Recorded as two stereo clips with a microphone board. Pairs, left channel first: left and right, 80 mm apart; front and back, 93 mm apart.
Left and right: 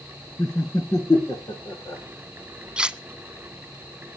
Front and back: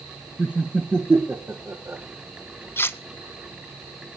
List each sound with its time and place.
0.4 s laughter: 105° left, 1.8 m; by 2.0 s 125° left, 2.5 m
2.8 s cutlery clinking: 25° right, 0.6 m